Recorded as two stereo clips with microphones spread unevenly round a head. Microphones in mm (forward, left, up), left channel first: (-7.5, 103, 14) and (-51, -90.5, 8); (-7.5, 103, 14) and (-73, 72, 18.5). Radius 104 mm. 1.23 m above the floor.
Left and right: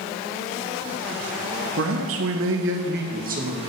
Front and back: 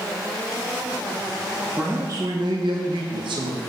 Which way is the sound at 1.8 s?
75° right.